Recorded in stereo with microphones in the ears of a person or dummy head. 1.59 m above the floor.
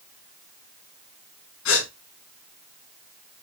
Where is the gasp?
75° left (ahead or behind), 5.5 m.